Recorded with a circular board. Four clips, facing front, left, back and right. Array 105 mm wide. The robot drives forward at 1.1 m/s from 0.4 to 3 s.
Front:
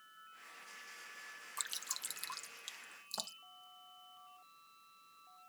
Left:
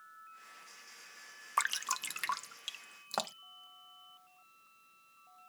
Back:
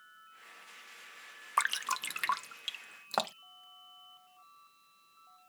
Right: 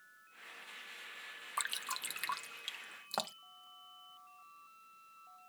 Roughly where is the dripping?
Behind left.